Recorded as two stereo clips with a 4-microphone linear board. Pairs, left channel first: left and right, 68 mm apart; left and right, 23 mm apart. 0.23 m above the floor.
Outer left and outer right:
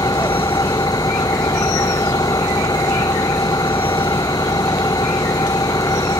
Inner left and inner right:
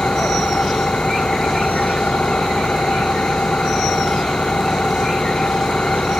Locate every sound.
0.0 s an engine running: 65° left (ahead or behind)